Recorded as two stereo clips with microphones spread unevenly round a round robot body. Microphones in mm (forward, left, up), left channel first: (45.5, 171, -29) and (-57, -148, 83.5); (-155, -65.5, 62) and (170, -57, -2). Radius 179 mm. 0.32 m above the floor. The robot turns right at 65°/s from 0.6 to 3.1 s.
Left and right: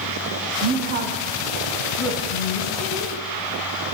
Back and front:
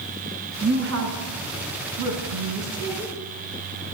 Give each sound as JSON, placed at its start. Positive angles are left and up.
{"t": 0.6, "sound": "a woman speaking", "azimuth_deg": -65, "distance_m": 3.0}